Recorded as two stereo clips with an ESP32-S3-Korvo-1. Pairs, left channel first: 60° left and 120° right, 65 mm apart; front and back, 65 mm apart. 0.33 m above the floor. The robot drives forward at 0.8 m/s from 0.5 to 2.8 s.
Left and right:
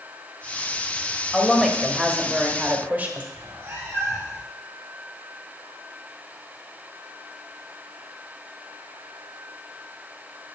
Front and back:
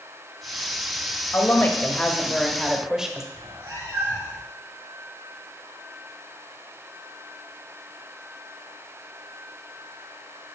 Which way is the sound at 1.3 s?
25° right.